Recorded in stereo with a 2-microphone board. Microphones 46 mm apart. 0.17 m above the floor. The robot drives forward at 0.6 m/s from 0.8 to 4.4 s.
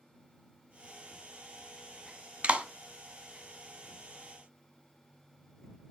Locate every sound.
2.4 s a clap: 25° right (ahead or behind), 1.3 m